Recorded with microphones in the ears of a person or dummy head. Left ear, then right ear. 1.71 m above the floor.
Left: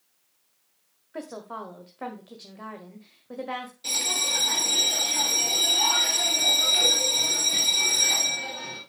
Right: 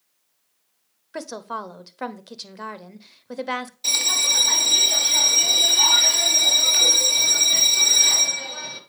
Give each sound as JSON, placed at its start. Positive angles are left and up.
{"t": 1.1, "sound": "a woman speaking", "side_deg": -80, "distance_m": 0.9}
{"t": 3.8, "sound": "a bell", "side_deg": -30, "distance_m": 1.7}